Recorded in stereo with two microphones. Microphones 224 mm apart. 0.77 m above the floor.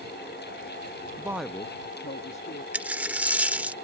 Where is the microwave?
No microwave in this recording.